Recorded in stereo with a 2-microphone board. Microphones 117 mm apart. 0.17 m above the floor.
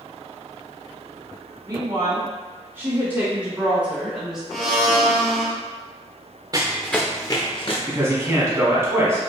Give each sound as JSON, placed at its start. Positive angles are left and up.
{"t": 1.7, "sound": "a woman speaking", "side_deg": -30, "distance_m": 1.6}
{"t": 4.5, "sound": "a blender", "side_deg": 5, "distance_m": 0.7}
{"t": 6.5, "sound": "running footsteps", "side_deg": -35, "distance_m": 0.6}
{"t": 7.9, "sound": "a man speaking", "side_deg": -20, "distance_m": 1.0}